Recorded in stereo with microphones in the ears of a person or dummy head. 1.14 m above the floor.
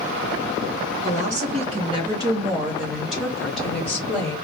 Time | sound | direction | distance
1.0 | a woman speaking | 40° right (ahead or behind) | 0.7 m